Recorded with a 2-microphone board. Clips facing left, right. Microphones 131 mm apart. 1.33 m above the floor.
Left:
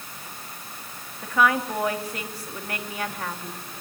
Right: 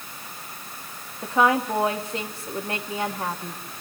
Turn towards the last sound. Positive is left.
turn(degrees=-25)  # may be behind; listen again after turning